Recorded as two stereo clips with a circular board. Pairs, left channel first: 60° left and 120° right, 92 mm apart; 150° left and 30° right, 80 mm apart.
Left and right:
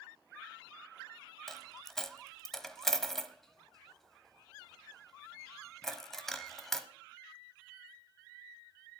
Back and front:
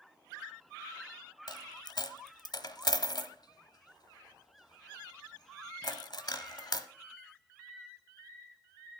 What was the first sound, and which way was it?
A dropped coin, 145° left.